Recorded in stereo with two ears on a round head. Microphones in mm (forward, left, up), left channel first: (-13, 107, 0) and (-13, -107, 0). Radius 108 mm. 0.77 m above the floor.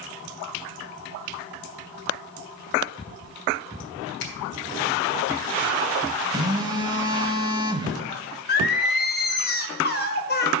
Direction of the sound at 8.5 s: 40° left (ahead or behind).